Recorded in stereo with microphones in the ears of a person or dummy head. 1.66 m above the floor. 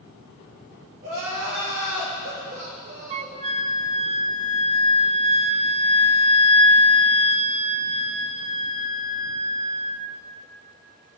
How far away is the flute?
About 0.5 m.